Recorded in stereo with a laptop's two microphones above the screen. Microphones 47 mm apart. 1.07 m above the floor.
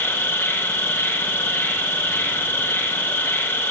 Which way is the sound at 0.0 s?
50° left (ahead or behind).